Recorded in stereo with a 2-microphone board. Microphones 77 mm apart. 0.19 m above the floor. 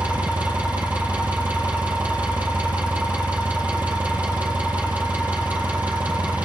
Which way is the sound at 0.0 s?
20° right (ahead or behind).